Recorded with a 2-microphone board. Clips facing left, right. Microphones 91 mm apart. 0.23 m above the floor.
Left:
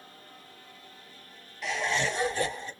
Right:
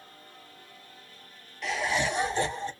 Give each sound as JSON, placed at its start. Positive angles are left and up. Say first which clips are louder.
{"t": 1.6, "sound": "laughter", "louder": "right 1 dB", "side_deg": 0, "distance_m": 1.3}